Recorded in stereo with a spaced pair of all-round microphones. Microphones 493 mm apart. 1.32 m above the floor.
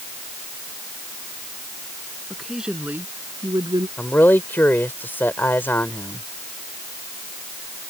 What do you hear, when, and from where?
2.3 s a woman speaking: centre (ahead or behind); by 3.9 s 10° right (ahead or behind)
4.0 s a man speaking: 5° left (ahead or behind)